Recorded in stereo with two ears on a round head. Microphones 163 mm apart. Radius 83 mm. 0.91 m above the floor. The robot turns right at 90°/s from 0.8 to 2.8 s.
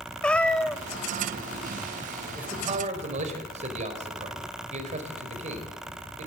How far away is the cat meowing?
About 0.7 m.